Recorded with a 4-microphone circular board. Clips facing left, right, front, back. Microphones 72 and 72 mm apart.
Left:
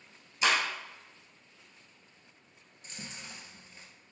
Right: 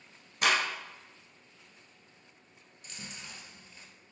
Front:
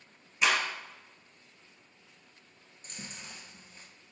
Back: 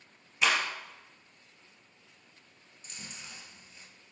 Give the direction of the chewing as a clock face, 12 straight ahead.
11 o'clock.